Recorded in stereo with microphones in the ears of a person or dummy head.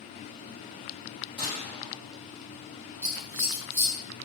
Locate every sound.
1.4 s a gunshot: 35° right (ahead or behind), 1.6 m
3.0 s scissors: 10° right (ahead or behind), 0.8 m